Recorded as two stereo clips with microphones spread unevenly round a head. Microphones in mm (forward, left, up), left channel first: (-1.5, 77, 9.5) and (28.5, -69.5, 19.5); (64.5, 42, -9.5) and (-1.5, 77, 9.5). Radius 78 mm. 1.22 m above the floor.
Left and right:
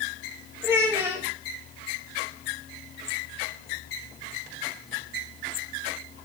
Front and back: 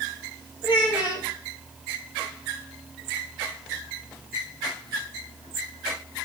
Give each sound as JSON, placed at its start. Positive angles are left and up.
{"t": 0.6, "sound": "a child speaking", "azimuth_deg": -5, "distance_m": 2.0}